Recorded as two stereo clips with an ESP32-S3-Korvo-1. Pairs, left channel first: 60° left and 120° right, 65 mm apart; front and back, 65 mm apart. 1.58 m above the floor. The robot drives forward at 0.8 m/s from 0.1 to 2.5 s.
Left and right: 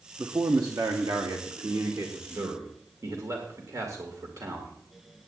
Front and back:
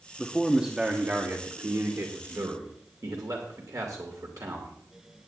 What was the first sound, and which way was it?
A man speaking, 85° right.